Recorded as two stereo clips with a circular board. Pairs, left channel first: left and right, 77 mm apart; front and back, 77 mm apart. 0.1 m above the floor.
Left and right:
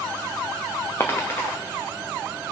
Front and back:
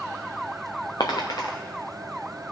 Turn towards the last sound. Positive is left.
turn(degrees=30)